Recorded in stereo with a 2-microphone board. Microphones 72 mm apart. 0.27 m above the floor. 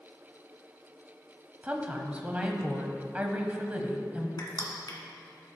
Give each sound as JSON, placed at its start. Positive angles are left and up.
{"t": 1.6, "sound": "a woman speaking", "side_deg": -20, "distance_m": 1.2}
{"t": 4.4, "sound": "crushing", "side_deg": 65, "distance_m": 1.8}